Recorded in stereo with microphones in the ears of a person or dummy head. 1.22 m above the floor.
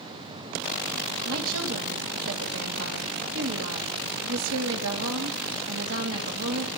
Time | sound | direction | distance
1.2 | a woman speaking | 70° right (ahead or behind) | 2 m